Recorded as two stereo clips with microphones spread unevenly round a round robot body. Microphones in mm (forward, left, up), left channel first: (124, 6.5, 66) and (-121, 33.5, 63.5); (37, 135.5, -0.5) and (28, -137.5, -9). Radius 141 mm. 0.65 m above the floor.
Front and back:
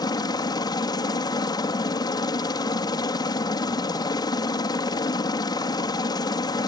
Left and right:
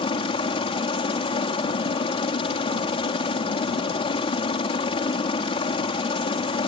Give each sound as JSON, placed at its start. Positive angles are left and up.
{"t": 0.0, "sound": "a helicopter", "azimuth_deg": 45}